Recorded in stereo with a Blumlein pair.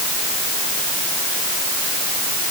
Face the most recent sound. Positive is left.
No sound to turn to.